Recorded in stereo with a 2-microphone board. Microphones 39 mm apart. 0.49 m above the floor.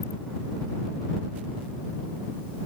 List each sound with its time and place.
Only background noise.